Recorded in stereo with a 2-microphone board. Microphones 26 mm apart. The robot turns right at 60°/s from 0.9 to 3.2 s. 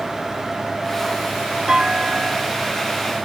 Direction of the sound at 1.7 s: 160° right.